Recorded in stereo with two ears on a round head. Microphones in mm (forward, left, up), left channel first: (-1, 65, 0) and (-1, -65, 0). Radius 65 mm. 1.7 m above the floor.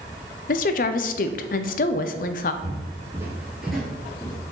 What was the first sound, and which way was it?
A woman speaking, 60° left (ahead or behind).